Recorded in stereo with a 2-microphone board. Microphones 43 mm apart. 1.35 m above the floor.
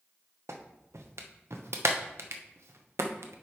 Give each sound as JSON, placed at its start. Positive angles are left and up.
{"t": 0.5, "sound": "a clap", "side_deg": -80, "distance_m": 0.9}